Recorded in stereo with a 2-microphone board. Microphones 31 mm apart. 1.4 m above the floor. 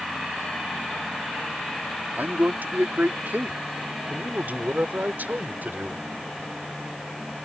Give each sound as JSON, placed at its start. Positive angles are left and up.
{"t": 2.2, "sound": "a man speaking", "side_deg": -85}